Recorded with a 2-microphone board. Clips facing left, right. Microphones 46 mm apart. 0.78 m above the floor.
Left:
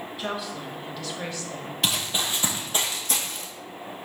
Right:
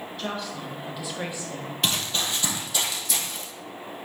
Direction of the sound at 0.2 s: 10° left (ahead or behind).